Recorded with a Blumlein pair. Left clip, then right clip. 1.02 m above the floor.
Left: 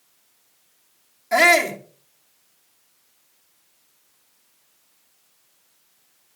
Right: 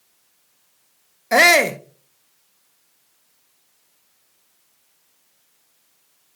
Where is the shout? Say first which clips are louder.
Right 2 dB; 65° right, 1.1 m.